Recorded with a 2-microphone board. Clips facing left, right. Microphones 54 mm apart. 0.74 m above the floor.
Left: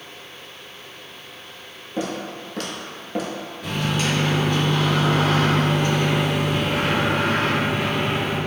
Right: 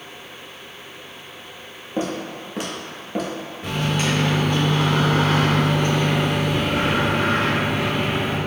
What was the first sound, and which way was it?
Footsteps, 30° right (ahead or behind).